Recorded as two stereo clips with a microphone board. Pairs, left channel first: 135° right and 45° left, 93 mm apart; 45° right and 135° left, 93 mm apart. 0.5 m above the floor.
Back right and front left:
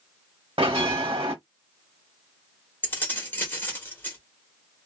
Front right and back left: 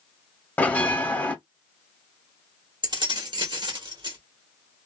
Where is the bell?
30° left, 0.8 m.